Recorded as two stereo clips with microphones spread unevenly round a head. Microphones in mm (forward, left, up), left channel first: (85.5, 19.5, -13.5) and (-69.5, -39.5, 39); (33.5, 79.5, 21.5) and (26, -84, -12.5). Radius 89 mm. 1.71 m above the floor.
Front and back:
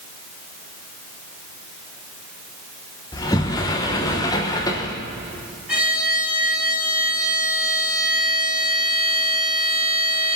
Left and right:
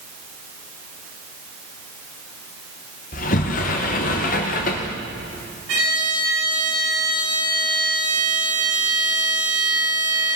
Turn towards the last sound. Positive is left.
turn(degrees=-85)